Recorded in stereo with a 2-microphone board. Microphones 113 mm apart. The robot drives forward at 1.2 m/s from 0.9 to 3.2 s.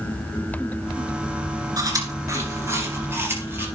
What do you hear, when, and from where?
1.8 s chewing: 35° right (ahead or behind), 2.5 m; by 3.6 s 20° right (ahead or behind), 4 m